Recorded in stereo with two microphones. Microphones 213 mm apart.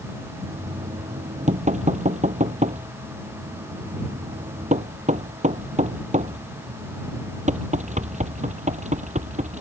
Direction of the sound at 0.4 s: 35° right (ahead or behind).